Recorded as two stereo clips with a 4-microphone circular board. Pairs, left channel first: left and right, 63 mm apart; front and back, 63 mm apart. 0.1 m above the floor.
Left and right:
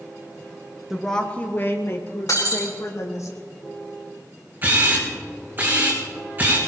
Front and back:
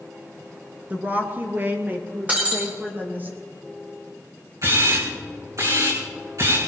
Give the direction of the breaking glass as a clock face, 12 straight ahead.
8 o'clock.